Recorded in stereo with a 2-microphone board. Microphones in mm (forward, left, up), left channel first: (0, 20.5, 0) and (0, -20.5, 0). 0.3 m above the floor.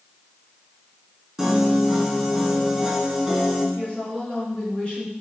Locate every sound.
1.4 s a piano: centre (ahead or behind), 2.5 m
3.8 s a woman speaking: 30° left (ahead or behind), 4 m